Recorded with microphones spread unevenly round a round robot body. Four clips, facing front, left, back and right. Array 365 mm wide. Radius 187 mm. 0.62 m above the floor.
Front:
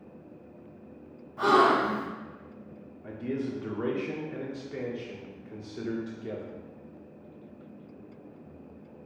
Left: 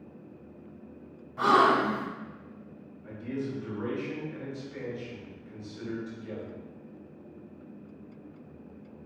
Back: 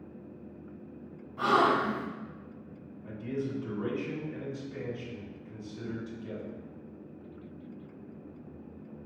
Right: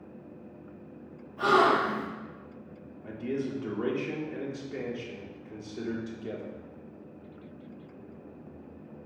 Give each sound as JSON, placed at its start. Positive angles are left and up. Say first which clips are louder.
{"t": 1.4, "sound": "a gasp", "louder": "left 1 dB, front 3 dB", "azimuth_deg": 90, "distance_m": 1.9}
{"t": 3.0, "sound": "a man speaking", "louder": "right 2 dB, front 2 dB", "azimuth_deg": -45, "distance_m": 1.7}